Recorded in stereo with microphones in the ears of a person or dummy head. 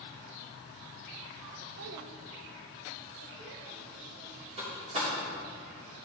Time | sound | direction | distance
1.8 | a child speaking | 45° right (ahead or behind) | 0.7 m
4.6 | a door slam | 40° right (ahead or behind) | 3.5 m